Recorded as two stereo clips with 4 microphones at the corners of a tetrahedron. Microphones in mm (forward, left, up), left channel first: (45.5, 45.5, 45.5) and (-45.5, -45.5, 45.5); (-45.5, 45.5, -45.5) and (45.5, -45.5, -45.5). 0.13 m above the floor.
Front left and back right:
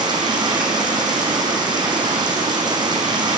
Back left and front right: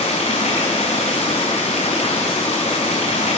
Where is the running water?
170° left, 3 m.